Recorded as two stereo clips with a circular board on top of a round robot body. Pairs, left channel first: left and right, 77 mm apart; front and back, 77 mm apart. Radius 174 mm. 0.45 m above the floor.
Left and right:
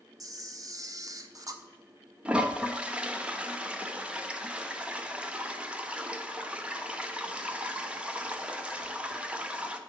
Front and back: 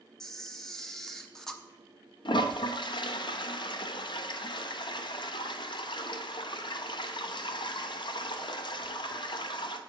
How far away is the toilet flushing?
About 0.8 m.